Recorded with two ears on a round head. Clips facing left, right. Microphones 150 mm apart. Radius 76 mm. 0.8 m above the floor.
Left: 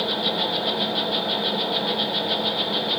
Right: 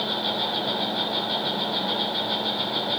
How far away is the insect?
About 3.5 m.